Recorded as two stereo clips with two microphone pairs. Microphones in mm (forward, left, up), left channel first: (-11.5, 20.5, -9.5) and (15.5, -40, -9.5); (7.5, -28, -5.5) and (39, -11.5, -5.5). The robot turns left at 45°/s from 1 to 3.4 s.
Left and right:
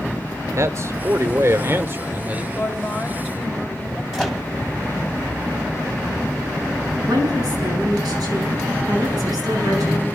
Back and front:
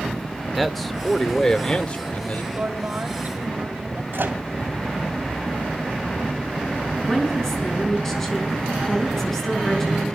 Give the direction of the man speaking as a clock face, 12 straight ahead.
2 o'clock.